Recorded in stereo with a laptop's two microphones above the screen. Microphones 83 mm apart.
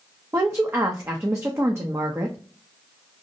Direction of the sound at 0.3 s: 30° right (ahead or behind).